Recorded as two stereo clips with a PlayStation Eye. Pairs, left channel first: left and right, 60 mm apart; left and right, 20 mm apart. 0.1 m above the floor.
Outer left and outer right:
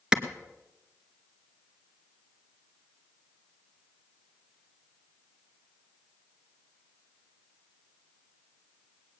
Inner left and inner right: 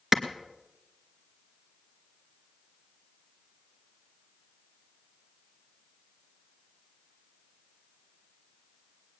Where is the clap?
10° right (ahead or behind), 1.4 m.